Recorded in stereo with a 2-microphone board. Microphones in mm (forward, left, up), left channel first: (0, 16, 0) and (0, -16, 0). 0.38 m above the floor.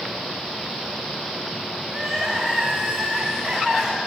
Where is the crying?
Centre (ahead or behind), 6 m.